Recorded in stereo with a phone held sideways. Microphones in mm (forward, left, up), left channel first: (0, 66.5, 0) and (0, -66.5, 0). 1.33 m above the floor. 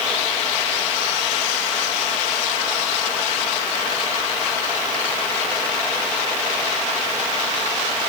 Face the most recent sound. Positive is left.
No sound to turn to.